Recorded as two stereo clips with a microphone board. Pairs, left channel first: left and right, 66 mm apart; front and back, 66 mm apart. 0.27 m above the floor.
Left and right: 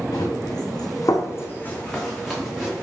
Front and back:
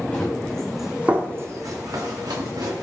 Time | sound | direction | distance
0.1 | running footsteps | 70° left | 1.2 m